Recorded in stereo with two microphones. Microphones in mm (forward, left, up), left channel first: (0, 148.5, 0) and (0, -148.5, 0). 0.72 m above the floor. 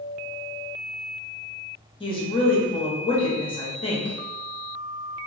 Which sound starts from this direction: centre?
A woman speaking, at 2.0 s.